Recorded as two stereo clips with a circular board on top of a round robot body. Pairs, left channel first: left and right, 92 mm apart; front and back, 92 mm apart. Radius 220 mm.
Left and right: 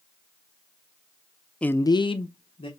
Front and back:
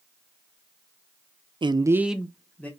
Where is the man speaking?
165° left, 0.6 m; by 2.7 s 70° left, 1.1 m.